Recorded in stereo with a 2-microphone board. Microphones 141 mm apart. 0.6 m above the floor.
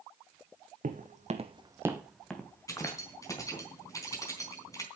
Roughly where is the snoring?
I don't hear snoring.